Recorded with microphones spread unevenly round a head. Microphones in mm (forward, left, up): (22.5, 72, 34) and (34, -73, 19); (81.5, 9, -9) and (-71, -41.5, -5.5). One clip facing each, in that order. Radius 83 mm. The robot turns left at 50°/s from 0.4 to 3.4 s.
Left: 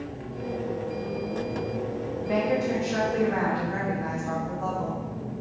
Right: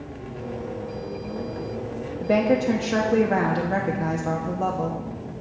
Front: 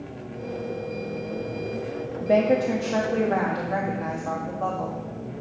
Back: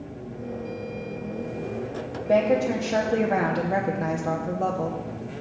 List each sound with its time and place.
2.2 s a woman speaking: 45° right, 1.0 m; by 5.0 s 105° right, 1.0 m